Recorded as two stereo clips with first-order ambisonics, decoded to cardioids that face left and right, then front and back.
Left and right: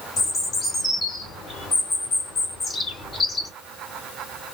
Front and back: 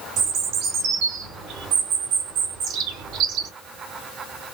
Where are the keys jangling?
I don't hear keys jangling.